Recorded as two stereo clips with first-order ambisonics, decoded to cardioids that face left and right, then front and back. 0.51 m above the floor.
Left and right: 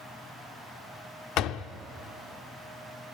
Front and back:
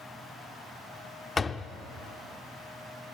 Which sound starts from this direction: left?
A door slam, at 1.4 s.